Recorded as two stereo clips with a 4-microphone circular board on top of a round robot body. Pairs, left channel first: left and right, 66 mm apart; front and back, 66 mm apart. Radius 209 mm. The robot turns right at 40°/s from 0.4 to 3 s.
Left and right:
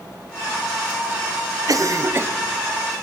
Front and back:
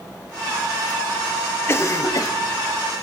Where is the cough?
55° right, 0.7 m; by 2.3 s 30° right, 0.7 m.